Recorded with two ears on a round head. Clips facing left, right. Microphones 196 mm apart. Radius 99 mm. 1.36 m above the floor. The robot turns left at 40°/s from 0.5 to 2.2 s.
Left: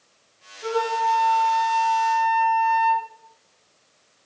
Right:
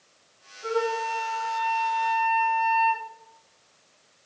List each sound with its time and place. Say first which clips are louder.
0.6 s a flute: left 2 dB; 90° left, 3 m; by 3.1 s 25° left, 3 m